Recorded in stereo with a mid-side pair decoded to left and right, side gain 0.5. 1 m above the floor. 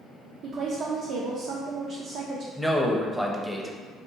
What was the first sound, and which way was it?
A woman speaking, 65° right.